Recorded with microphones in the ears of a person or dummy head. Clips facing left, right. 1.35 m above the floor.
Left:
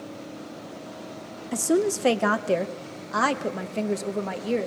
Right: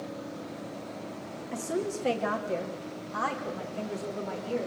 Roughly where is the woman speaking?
Left.